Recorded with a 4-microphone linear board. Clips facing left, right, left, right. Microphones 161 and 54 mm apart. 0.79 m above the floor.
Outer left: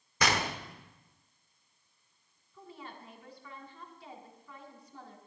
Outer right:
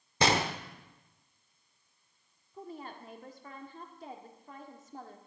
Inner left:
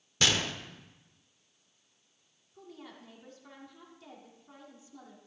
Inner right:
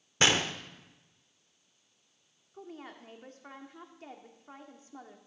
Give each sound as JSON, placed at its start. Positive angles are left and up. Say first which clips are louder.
{"t": 0.2, "sound": "a gunshot", "louder": "outer right 3 dB, inner right 3 dB", "side_deg": -25, "distance_m": 0.7}
{"t": 2.5, "sound": "a woman speaking", "louder": "outer right 4 dB, inner right 3 dB", "side_deg": -45, "distance_m": 1.4}